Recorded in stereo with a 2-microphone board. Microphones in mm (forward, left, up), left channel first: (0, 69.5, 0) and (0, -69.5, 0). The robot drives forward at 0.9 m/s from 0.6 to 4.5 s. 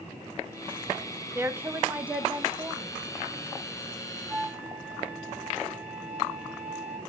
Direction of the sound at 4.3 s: Centre (ahead or behind).